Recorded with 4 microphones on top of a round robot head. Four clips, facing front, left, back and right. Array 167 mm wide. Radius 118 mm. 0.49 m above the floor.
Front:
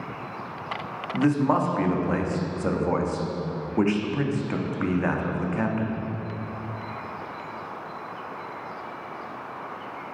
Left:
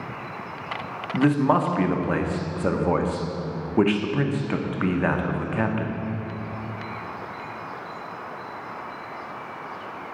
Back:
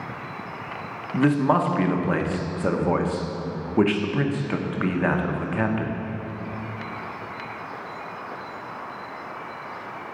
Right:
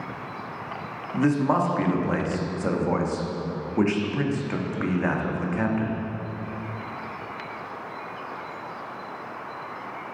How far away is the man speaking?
About 0.8 m.